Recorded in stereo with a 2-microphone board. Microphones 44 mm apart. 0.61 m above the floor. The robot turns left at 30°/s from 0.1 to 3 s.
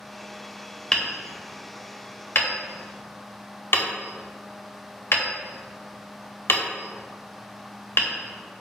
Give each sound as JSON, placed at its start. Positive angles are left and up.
{"t": 0.9, "sound": "hammering", "side_deg": 20, "distance_m": 0.6}